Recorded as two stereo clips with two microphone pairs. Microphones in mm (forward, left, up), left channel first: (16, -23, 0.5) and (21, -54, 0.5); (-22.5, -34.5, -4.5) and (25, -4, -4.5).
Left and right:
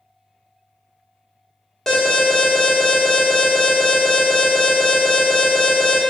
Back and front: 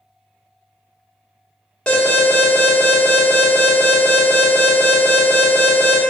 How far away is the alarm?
About 0.9 m.